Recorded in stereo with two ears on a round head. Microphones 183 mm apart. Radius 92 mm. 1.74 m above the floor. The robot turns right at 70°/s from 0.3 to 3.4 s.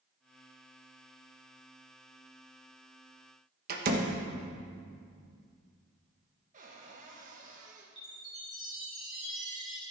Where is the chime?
5° right (ahead or behind), 4.5 m.